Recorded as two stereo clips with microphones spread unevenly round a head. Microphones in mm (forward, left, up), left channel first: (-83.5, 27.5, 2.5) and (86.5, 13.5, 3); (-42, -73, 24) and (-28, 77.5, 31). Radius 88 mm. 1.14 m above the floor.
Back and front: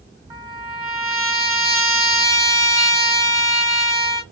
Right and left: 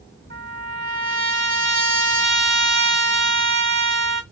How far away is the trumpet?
About 2.5 m.